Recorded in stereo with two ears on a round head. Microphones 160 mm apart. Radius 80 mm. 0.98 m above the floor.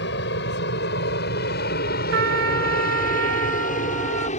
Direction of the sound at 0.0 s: 65° left (ahead or behind).